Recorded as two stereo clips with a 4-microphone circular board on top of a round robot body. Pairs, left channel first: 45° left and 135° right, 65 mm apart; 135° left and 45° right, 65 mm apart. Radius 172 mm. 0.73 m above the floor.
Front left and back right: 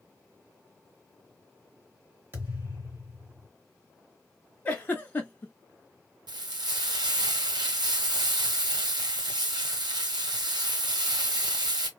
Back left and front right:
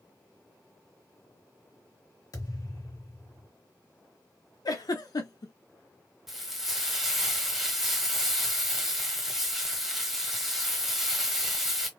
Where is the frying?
130° right, 0.9 m.